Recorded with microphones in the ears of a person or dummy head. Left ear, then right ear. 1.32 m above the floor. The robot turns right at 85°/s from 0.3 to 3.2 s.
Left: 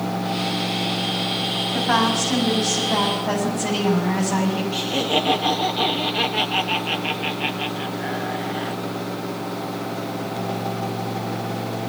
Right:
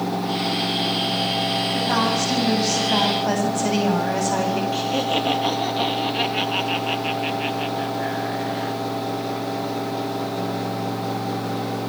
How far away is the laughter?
About 2.5 m.